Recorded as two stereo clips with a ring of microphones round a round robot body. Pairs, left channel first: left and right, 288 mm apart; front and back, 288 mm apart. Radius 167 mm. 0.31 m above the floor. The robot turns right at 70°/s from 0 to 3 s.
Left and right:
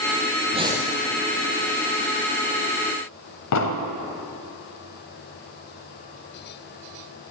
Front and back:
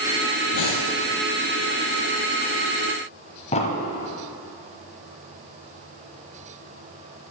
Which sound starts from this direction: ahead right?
Breathing, at 0.5 s.